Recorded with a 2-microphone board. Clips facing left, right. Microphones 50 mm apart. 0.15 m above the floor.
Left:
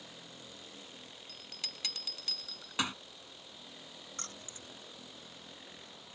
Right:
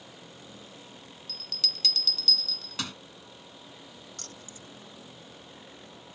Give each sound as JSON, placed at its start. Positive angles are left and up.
{"t": 1.3, "sound": "a bell", "side_deg": 20}
{"t": 4.2, "sound": "keys jangling", "side_deg": 30}